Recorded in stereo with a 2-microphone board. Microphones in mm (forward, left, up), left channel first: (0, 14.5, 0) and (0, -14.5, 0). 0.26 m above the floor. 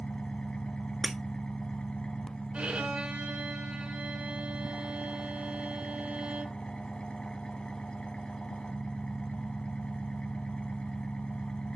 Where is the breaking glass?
10° right (ahead or behind), 0.6 m.